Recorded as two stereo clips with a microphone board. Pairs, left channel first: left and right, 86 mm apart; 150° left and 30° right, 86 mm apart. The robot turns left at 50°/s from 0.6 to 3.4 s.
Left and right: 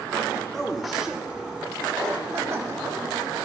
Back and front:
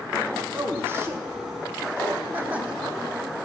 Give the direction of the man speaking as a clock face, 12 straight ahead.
12 o'clock.